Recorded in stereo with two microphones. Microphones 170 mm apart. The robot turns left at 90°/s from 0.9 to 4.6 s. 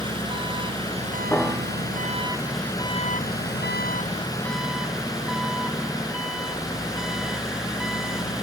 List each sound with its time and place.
0.0 s an engine running: 30° right; by 8.4 s 5° right
1.3 s a piano: 10° left; by 1.9 s 45° right